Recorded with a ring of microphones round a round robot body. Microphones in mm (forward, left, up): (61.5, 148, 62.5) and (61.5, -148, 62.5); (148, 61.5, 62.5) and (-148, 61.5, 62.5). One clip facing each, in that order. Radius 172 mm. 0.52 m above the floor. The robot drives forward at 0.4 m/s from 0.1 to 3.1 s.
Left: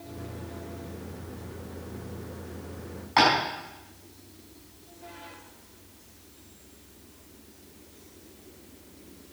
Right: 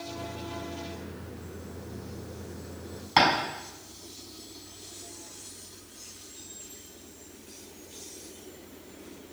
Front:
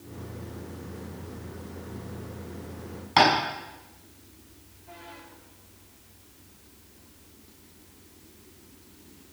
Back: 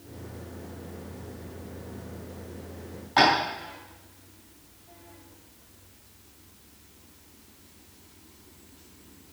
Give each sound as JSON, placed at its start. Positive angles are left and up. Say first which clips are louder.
{"t": 3.2, "sound": "tapping", "louder": "left 1 dB, front 1 dB", "azimuth_deg": -50, "distance_m": 6.0}